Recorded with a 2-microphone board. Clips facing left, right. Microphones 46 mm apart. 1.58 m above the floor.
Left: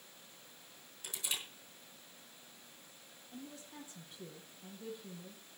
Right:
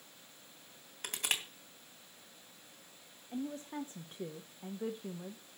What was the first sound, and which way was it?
Crushing, 60° right (ahead or behind).